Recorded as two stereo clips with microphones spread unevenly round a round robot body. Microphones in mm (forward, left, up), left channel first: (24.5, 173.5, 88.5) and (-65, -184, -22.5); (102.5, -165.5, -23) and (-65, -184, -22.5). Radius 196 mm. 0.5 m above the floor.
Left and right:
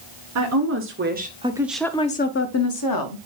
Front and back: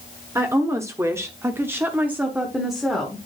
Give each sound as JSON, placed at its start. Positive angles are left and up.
{"t": 0.3, "sound": "a woman speaking", "azimuth_deg": -100, "distance_m": 1.3}